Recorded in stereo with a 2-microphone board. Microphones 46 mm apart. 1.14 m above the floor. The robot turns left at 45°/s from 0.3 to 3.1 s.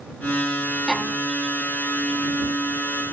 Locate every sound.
0.9 s a violin: centre (ahead or behind); by 1.2 s 15° left (ahead or behind)